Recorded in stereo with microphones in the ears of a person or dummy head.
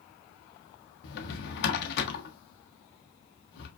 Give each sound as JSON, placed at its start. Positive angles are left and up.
{"t": 1.0, "sound": "a drawer", "side_deg": 70, "distance_m": 0.7}